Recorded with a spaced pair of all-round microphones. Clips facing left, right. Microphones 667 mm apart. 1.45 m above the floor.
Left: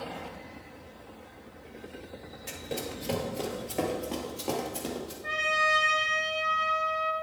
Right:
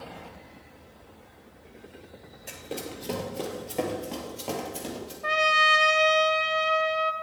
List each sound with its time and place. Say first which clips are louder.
2.5 s running footsteps: even; 35° left (ahead or behind), 1.7 m; by 5.1 s 20° right (ahead or behind), 2.5 m
5.2 s a trumpet: right 4 dB; 80° right, 0.8 m